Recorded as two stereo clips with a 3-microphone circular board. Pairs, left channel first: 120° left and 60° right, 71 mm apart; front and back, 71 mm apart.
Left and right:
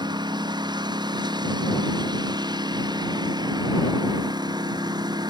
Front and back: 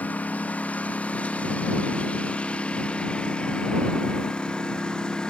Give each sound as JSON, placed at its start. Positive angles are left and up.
{"t": 0.0, "sound": "a lawn mower", "azimuth_deg": -70}